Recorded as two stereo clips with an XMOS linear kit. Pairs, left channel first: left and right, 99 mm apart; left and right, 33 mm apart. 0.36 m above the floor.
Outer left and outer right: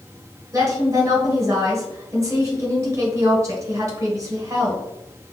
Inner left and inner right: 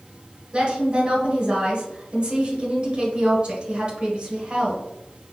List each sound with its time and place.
0.5 s a woman speaking: 35° right (ahead or behind), 1.2 m